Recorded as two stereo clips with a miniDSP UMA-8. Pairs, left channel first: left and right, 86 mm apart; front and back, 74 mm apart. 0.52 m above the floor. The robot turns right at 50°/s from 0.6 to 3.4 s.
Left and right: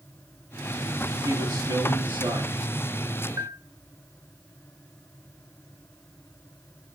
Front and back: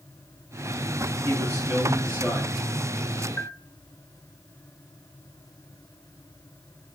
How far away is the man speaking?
About 8 m.